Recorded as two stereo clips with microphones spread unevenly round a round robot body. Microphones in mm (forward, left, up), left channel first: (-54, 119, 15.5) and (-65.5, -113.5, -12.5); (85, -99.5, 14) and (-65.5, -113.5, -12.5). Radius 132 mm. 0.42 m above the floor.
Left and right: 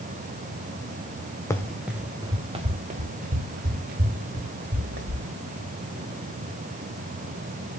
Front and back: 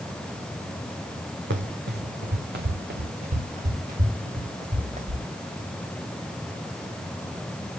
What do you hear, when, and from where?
1.5 s running footsteps: 165° left, 1.4 m; by 5.2 s 135° right, 4.5 m